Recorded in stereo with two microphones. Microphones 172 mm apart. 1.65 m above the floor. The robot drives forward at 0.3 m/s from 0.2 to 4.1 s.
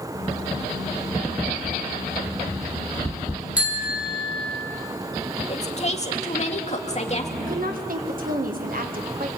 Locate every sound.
3.6 s a bicycle bell: 10° right (ahead or behind), 2.5 m
5.5 s a woman speaking: 40° left (ahead or behind), 2 m
7.4 s a woman speaking: 60° right (ahead or behind), 1.9 m